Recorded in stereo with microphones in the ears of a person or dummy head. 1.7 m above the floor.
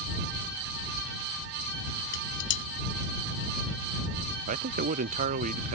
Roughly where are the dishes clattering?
Left.